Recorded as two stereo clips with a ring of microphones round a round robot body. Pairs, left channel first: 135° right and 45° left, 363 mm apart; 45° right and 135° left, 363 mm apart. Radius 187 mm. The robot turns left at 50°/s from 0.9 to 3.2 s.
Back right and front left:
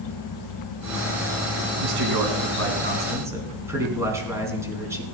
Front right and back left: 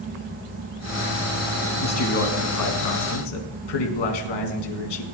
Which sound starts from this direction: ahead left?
A man speaking, at 1.8 s.